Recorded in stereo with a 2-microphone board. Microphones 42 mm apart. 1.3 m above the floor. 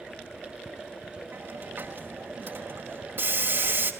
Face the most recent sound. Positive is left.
turn(degrees=-55)  # may be behind; listen again after turning